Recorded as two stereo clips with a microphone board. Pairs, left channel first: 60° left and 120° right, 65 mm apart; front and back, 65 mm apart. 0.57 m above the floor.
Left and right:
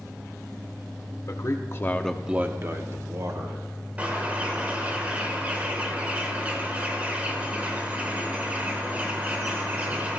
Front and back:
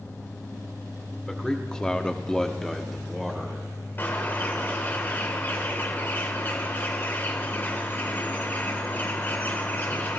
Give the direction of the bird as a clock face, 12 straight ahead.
2 o'clock.